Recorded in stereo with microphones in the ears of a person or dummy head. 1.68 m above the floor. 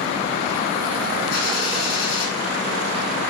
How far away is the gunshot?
About 7 m.